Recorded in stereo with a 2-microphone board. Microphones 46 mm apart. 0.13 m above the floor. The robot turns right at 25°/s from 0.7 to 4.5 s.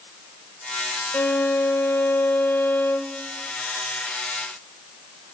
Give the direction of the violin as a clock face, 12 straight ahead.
9 o'clock.